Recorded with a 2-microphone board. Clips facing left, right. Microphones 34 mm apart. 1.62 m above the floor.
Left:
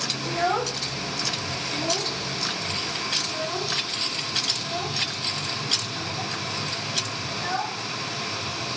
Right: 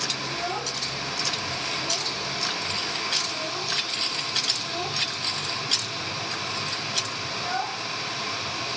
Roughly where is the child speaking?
Left.